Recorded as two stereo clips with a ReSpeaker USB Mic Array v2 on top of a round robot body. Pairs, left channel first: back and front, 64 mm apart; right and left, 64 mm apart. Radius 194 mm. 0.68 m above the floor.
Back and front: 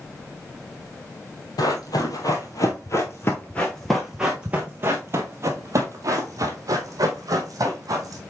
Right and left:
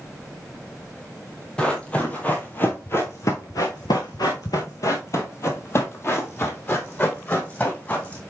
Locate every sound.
1.6 s running footsteps: 165° right, 1.4 m; by 8.2 s 25° right, 2.5 m